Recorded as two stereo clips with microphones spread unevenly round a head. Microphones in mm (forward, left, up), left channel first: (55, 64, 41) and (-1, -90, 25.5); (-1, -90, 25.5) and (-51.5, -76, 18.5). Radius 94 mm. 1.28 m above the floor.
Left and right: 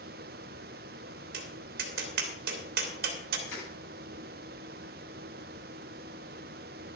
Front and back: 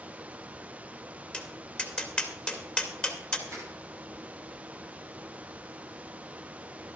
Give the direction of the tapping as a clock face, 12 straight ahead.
3 o'clock.